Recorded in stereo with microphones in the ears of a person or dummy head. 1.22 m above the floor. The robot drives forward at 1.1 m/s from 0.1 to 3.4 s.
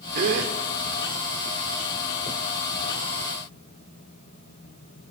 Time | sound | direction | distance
0.1 | a gasp | 50° right (ahead or behind) | 1.4 m